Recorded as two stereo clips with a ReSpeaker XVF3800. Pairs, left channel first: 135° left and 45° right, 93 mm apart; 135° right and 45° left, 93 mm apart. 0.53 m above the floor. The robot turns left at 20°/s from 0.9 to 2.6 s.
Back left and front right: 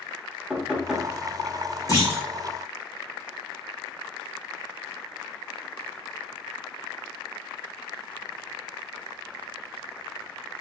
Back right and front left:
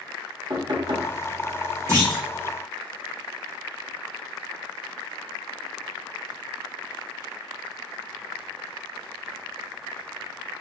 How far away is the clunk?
About 1.7 m.